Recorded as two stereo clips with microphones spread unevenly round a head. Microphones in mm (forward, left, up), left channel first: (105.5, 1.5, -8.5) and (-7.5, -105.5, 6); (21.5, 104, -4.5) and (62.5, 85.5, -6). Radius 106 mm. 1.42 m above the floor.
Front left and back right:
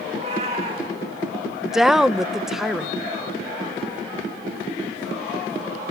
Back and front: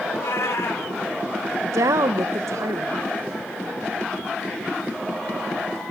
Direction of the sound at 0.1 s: 165° left.